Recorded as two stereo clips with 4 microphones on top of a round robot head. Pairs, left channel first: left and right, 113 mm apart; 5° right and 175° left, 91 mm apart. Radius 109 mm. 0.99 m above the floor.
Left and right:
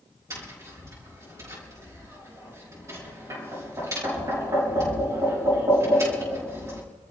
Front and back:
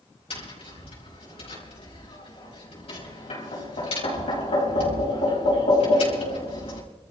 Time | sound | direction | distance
0.3 | tapping | 25° right | 5 m